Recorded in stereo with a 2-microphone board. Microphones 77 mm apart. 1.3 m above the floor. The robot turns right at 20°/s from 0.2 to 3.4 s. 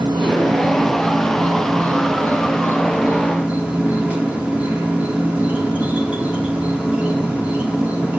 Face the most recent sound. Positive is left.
turn(degrees=-20)